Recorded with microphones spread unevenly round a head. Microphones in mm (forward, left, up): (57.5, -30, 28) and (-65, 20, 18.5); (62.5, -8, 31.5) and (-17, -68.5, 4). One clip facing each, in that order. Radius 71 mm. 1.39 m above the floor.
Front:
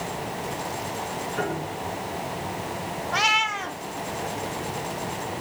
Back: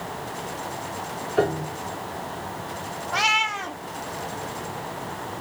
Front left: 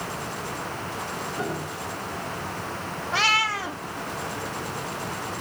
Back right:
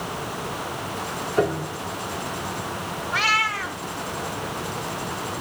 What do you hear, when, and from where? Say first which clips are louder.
1.4 s a piano: back 8 dB, back right 11 dB; 160° right, 5.5 m
3.1 s a cat meowing: back 1 dB, even; 65° left, 1.3 m